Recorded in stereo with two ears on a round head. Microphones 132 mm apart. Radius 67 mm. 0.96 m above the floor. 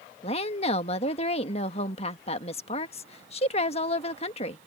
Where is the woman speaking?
40° left (ahead or behind).